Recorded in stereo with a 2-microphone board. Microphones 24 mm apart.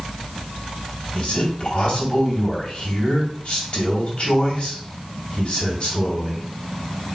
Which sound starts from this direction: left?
A man speaking, at 1.1 s.